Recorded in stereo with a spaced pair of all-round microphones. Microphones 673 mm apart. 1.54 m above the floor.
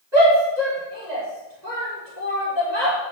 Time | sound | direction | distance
0.1 | a shout | 90° right | 5 m